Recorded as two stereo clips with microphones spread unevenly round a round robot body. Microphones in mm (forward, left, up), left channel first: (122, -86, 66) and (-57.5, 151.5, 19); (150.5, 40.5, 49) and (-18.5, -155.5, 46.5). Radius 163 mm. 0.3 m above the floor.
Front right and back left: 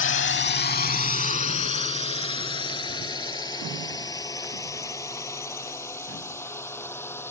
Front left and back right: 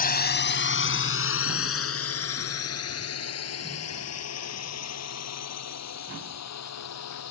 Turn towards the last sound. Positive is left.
turn(degrees=30)